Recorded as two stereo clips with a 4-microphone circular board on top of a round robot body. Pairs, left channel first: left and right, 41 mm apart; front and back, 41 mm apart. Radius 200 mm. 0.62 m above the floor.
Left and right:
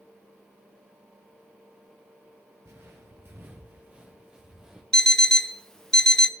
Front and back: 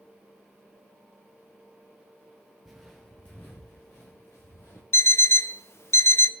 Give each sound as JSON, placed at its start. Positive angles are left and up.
{"t": 2.6, "sound": "footsteps", "azimuth_deg": -90, "distance_m": 1.0}
{"t": 4.9, "sound": "an alarm clock", "azimuth_deg": 10, "distance_m": 0.8}